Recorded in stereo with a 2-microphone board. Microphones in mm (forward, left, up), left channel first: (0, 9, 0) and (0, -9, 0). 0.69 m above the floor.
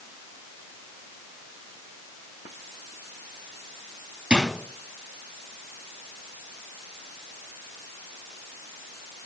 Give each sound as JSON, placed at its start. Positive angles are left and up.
{"t": 4.3, "sound": "a drawer", "side_deg": -85, "distance_m": 3.5}